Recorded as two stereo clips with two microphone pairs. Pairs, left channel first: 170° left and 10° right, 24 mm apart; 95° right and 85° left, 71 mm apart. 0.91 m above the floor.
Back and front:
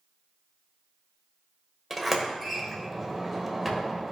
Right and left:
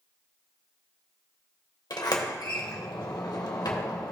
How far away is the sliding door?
About 1.3 m.